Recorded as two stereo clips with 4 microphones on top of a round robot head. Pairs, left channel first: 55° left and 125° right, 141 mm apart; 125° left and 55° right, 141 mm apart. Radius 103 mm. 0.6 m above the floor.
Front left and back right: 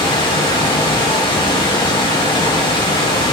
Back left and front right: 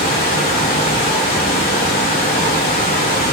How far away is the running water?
About 0.8 m.